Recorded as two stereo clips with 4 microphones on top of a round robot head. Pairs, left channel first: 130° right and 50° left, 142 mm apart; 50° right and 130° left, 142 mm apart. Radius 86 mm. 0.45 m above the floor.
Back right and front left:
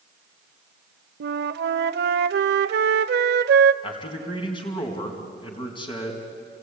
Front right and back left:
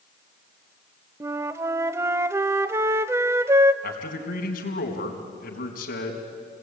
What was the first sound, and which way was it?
A flute, 60° left.